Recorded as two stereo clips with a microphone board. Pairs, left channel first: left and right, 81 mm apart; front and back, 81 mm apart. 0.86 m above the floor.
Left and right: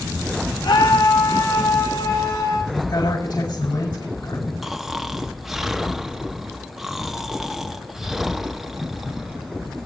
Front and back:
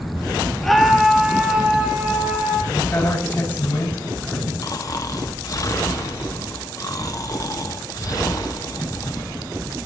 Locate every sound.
0.6 s a scream: 85° left, 1.5 m; by 2.6 s 115° left, 3.5 m
2.7 s a woman speaking: 65° left, 7.5 m
4.6 s snoring: 5° right, 0.9 m